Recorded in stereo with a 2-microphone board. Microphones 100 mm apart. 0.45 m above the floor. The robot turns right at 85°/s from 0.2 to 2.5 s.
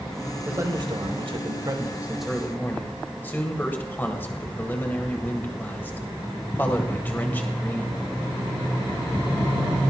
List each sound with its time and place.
0.5 s a man speaking: 155° right, 2 m; by 8.0 s 20° left, 2 m